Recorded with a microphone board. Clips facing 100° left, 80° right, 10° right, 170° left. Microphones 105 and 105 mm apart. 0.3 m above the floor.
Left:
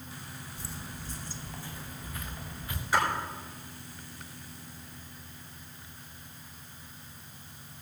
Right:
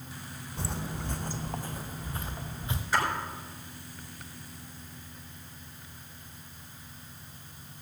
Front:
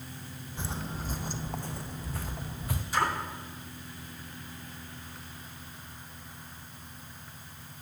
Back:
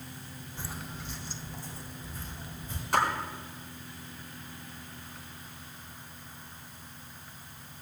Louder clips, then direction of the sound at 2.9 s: Left 1 dB, back 2 dB; straight behind.